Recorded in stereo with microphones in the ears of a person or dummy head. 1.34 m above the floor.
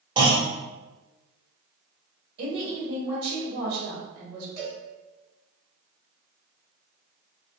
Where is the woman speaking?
60° right (ahead or behind), 1.5 m.